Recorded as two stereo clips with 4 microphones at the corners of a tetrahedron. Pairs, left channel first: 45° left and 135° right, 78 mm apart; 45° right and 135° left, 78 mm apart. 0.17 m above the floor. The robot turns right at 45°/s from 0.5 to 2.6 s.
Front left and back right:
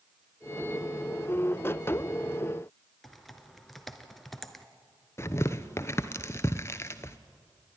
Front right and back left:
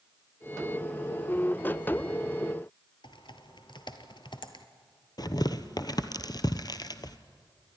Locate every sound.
3.0 s typing on a keyboard: 45° right, 1.1 m
5.2 s tearing paper: 10° right, 0.8 m